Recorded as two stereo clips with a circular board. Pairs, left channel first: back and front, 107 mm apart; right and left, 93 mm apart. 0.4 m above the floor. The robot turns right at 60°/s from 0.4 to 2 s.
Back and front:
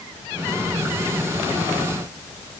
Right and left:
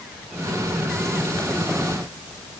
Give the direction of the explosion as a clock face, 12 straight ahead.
I don't hear an explosion.